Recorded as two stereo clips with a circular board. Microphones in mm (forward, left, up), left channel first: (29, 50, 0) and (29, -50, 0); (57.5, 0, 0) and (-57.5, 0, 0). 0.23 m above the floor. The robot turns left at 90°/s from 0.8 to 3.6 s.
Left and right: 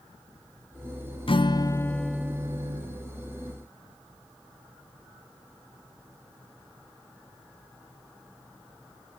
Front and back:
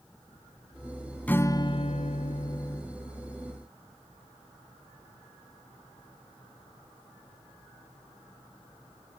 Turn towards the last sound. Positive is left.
turn(degrees=-135)